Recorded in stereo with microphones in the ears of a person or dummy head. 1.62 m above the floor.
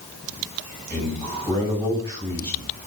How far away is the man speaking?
About 9.5 m.